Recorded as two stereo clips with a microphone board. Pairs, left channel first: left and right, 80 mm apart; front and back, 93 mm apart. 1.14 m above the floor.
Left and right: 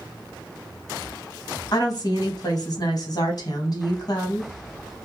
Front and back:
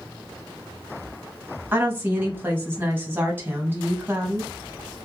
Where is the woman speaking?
110° left, 0.9 m.